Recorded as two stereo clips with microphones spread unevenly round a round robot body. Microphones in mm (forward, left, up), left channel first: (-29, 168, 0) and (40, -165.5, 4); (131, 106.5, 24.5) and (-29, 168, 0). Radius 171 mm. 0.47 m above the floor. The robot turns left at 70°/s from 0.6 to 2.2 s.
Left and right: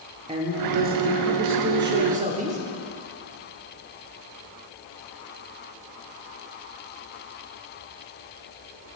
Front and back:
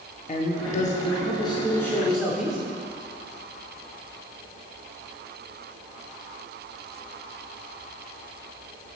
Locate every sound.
0.3 s a man speaking: 20° right, 0.8 m; by 2.6 s 130° right, 0.8 m